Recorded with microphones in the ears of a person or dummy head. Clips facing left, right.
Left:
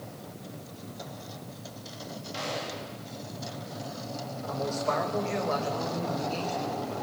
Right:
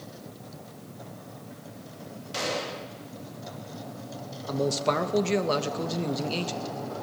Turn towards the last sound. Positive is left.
turn(degrees=-55)  # may be behind; listen again after turning